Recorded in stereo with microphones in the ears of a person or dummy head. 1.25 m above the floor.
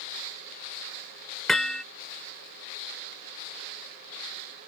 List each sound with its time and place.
1.5 s hammering: 5° left (ahead or behind)